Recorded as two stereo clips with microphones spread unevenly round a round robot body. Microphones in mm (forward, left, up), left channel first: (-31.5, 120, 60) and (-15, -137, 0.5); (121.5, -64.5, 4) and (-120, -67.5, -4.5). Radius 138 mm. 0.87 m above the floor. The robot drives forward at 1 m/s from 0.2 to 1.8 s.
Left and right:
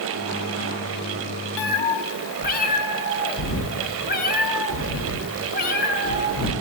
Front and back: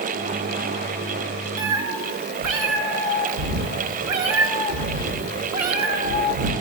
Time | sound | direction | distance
1.6 | a cat meowing | 130° left | 0.5 m